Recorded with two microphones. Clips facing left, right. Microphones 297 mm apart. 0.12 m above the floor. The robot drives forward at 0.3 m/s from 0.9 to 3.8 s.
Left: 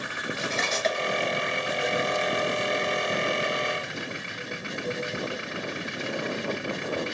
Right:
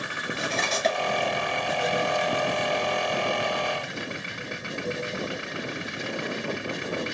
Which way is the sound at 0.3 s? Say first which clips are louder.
Right 2 dB; 40° right (ahead or behind).